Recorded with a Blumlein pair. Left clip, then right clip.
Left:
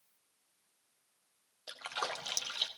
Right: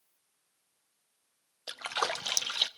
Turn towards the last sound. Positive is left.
turn(degrees=-20)